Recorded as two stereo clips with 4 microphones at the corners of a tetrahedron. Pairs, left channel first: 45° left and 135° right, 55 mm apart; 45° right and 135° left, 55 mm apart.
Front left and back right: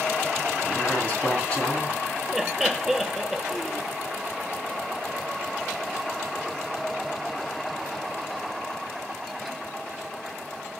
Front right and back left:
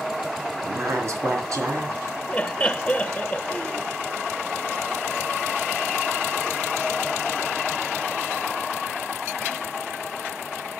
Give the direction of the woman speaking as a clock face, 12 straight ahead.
8 o'clock.